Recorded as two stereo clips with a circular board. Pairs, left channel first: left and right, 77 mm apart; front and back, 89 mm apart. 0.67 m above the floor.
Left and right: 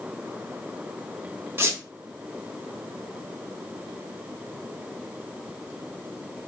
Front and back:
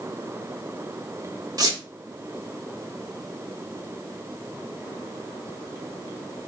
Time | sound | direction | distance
1.6 | a squeak | 145° right | 0.8 m